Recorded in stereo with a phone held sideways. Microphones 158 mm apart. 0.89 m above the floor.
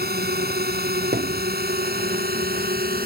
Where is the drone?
85° right; by 3.1 s 75° right (ahead or behind).